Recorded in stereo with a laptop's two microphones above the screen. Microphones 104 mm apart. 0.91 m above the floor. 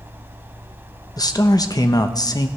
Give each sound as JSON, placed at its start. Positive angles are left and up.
{"t": 0.0, "sound": "a fan", "side_deg": -20, "distance_m": 1.6}
{"t": 1.2, "sound": "a man speaking", "side_deg": 40, "distance_m": 0.8}